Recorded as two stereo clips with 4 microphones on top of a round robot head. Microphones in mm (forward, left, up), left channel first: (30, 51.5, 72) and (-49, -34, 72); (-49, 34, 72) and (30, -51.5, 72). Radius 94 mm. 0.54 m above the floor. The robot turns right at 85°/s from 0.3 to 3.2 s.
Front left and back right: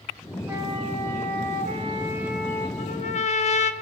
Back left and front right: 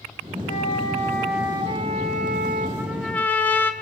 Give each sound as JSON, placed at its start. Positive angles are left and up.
{"t": 0.5, "sound": "a flute", "azimuth_deg": 155, "distance_m": 5.0}
{"t": 2.8, "sound": "a trumpet", "azimuth_deg": 20, "distance_m": 3.0}